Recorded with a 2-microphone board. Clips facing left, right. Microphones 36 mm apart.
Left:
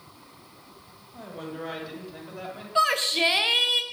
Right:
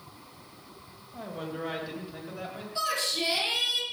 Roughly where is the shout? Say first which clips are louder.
Left 8 dB; left.